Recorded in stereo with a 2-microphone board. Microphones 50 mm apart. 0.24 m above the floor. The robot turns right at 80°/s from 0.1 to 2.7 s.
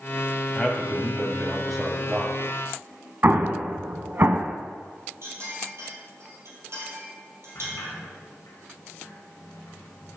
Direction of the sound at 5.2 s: 55° right (ahead or behind).